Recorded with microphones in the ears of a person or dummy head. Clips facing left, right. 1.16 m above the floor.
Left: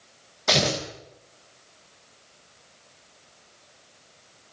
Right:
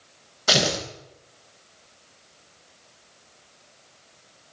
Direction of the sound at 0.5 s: 10° right (ahead or behind).